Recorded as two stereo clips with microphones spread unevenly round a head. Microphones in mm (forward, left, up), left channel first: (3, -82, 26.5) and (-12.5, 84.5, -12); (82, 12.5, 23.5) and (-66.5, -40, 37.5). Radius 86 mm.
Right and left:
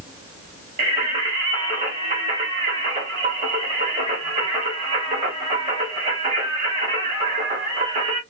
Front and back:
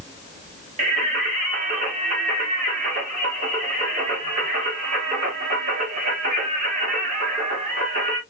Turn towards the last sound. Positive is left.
turn(degrees=150)